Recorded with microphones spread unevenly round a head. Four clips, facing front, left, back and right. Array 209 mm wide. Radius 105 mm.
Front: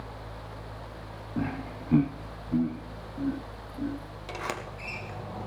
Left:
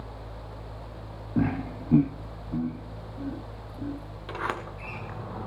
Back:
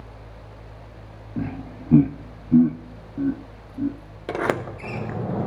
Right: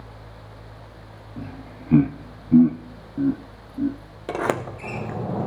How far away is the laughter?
About 0.7 m.